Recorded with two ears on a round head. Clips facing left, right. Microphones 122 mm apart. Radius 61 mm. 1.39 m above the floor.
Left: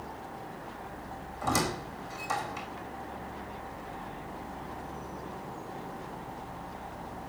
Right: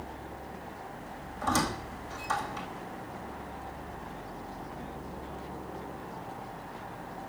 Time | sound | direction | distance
1.4 | a squeak | 10° left (ahead or behind) | 4 m